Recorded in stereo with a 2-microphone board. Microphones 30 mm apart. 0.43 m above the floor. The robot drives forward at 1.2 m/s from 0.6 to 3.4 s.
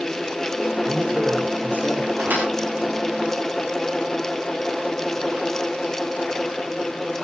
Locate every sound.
0.9 s a man speaking: 70° right (ahead or behind), 5 m; by 2.1 s 55° right (ahead or behind), 6 m
2.2 s a thud: 80° right, 9 m